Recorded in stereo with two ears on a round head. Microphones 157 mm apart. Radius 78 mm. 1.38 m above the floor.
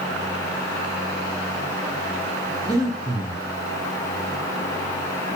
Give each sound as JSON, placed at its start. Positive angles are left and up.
{"t": 2.6, "sound": "breathing", "side_deg": -20, "distance_m": 0.8}